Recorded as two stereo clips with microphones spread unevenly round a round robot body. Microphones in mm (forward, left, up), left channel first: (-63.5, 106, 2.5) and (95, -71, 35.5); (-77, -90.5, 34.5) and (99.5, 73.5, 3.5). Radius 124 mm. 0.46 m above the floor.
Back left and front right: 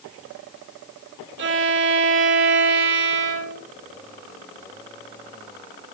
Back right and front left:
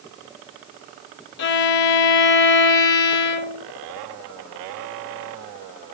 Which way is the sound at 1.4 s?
95° right.